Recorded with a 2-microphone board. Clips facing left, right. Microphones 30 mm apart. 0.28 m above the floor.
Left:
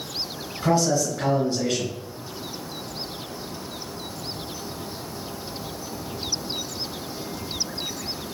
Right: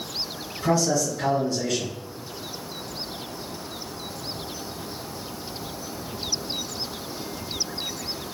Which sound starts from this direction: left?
A man speaking, at 0.6 s.